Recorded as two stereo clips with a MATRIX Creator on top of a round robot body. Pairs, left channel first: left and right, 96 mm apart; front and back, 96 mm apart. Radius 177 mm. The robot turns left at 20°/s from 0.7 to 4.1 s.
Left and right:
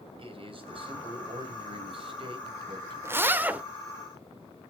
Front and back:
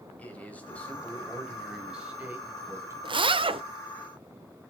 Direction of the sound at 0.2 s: 75° right.